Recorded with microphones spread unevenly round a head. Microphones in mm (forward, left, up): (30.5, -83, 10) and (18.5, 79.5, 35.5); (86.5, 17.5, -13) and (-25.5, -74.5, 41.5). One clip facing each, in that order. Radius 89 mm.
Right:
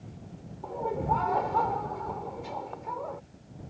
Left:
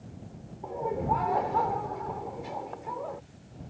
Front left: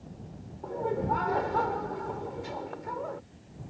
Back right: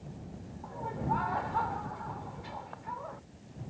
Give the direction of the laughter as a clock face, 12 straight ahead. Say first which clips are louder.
Even, front left 6 dB; 12 o'clock.